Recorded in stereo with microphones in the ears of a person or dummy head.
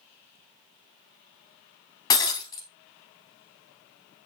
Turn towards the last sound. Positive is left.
turn(degrees=20)  # may be behind; listen again after turning